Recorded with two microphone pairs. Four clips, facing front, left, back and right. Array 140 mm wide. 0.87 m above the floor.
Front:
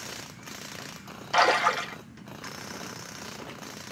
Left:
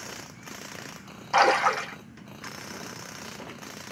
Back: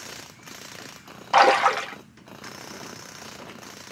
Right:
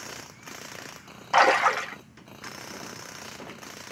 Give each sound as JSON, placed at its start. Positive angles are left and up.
{"t": 1.3, "sound": "a splash", "azimuth_deg": -160, "distance_m": 1.0}